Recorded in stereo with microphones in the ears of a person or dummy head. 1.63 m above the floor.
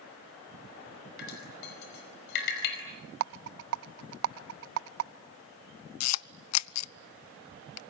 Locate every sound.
1.2 s dripping: 50° left (ahead or behind), 5 m
3.2 s a rattle: 60° right (ahead or behind), 0.6 m
6.0 s a camera shutter: 80° left, 0.5 m